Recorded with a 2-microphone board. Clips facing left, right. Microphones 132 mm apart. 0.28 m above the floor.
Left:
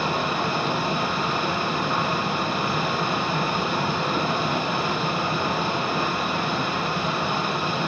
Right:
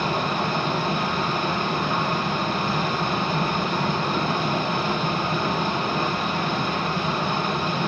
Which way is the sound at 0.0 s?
10° left (ahead or behind).